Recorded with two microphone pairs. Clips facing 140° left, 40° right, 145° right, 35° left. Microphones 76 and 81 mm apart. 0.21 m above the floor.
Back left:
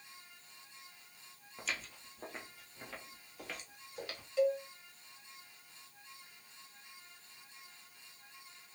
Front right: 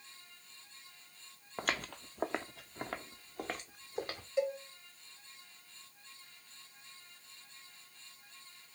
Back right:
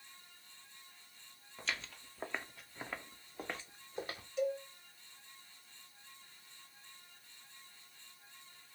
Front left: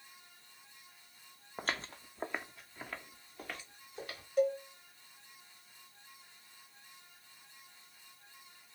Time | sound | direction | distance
1.6 | footsteps | 5° right | 0.6 m
4.4 | a cowbell | 15° left | 0.7 m